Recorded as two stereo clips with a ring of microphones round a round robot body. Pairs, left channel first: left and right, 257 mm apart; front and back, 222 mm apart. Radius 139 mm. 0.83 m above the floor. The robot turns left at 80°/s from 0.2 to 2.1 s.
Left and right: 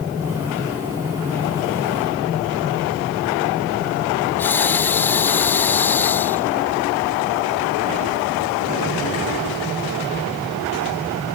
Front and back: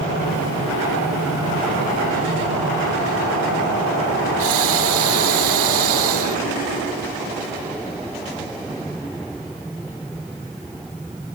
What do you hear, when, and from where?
4.4 s breathing: 170° left